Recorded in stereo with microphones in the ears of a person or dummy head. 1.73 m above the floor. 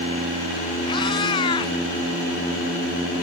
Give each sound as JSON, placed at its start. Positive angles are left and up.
{"t": 0.9, "sound": "a cat meowing", "side_deg": 30}